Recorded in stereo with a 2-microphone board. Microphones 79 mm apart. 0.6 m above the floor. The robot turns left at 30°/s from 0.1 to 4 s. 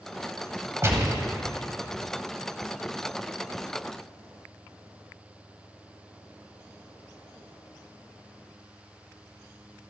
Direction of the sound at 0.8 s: 35° right (ahead or behind).